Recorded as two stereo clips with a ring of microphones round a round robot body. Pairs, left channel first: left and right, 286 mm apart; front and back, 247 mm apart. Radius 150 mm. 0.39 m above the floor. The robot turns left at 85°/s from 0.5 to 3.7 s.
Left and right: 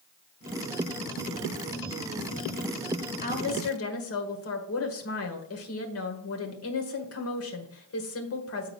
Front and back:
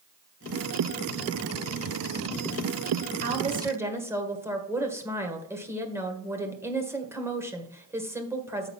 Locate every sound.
3.2 s a woman speaking: 145° left, 1.7 m; by 8.7 s 100° left, 1.7 m